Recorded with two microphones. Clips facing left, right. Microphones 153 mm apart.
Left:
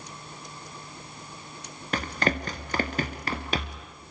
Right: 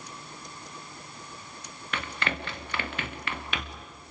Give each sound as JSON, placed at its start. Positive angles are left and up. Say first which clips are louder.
{"t": 1.9, "sound": "running footsteps", "louder": "left 6 dB", "side_deg": 40, "distance_m": 1.8}